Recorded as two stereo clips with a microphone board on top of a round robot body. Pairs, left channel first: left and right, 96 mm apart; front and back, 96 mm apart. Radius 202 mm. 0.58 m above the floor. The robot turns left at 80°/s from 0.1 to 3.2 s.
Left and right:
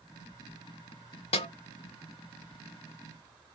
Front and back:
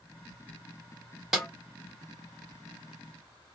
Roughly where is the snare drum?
Left.